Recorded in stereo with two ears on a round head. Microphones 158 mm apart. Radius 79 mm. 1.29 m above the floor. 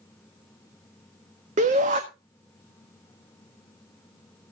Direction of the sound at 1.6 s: 40° right (ahead or behind).